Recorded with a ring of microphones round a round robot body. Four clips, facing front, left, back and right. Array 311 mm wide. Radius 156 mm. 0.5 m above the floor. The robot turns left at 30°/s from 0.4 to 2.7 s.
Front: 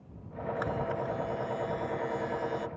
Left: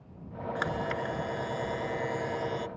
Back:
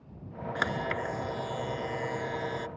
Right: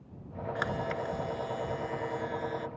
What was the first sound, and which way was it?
A camera shutter, 175° right.